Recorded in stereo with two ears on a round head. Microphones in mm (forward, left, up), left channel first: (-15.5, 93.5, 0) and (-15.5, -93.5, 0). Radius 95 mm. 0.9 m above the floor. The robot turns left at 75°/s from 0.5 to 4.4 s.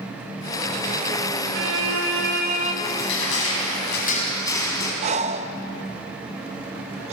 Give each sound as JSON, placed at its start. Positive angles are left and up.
{"t": 1.5, "sound": "a violin", "azimuth_deg": -60, "distance_m": 2.0}
{"t": 2.8, "sound": "crushing", "azimuth_deg": 135, "distance_m": 3.5}
{"t": 5.0, "sound": "breathing", "side_deg": -30, "distance_m": 0.6}